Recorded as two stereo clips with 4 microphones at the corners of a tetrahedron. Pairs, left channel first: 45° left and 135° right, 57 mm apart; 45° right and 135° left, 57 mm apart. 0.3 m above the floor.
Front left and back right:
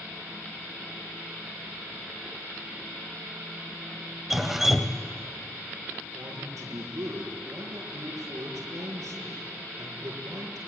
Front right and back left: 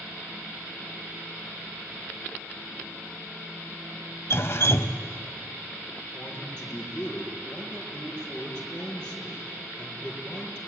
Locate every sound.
4.3 s dripping: 50° right, 0.9 m
6.1 s a man speaking: 120° right, 6 m